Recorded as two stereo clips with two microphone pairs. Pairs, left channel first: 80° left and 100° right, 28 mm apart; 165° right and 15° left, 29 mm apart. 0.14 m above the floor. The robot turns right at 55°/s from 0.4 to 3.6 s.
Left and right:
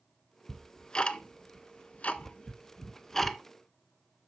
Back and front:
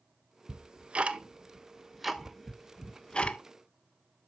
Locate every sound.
0.5 s ticking: 10° left, 0.6 m; by 3.4 s 170° left, 0.6 m